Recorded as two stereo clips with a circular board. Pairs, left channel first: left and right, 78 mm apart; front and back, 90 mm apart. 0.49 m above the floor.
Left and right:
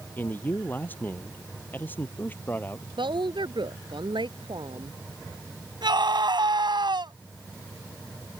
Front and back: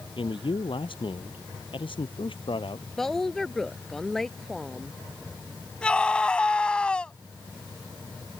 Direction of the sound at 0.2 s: 25° left.